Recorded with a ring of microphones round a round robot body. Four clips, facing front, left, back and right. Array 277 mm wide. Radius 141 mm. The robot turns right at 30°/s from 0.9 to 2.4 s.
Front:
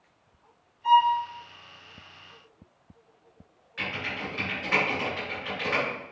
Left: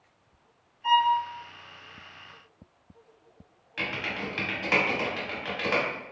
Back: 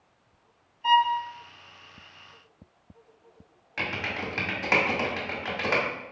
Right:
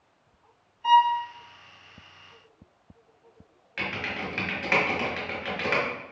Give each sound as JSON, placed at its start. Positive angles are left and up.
{"t": 0.8, "sound": "a violin", "azimuth_deg": -145, "distance_m": 0.5}
{"t": 3.8, "sound": "typing on a keyboard", "azimuth_deg": -165, "distance_m": 1.0}